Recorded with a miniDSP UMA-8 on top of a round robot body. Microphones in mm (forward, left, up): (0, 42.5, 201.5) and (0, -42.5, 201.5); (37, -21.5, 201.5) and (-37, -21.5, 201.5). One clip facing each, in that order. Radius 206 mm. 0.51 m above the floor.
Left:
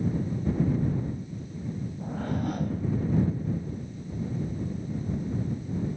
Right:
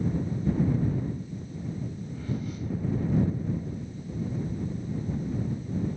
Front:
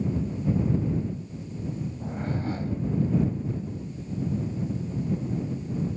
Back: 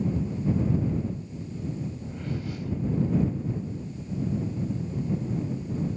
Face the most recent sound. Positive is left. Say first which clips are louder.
# left 7 dB, front 3 dB
turn(degrees=55)